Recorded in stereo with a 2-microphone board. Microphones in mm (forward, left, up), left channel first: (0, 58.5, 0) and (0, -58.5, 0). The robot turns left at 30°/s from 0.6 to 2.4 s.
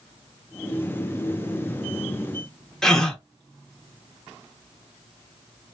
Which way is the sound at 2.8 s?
5° left (ahead or behind).